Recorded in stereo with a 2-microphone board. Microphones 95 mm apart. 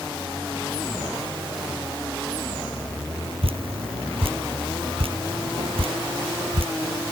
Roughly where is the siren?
No siren in this recording.